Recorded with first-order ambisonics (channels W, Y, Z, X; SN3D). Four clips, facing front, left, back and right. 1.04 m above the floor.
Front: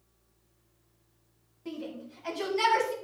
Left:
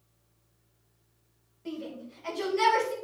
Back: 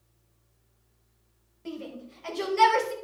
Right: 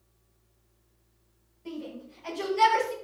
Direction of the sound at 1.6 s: 165° left.